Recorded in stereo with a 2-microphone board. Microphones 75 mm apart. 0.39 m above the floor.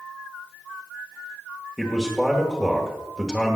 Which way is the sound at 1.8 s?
5° right (ahead or behind).